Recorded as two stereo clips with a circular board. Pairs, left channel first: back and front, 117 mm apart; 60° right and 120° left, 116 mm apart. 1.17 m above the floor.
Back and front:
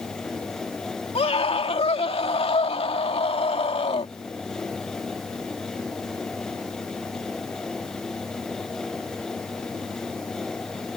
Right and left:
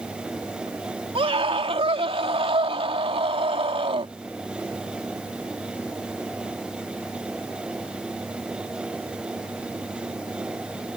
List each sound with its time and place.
1.1 s a scream: 155° left